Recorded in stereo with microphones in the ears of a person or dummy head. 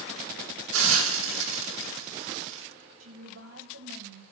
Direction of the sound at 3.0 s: 85° right.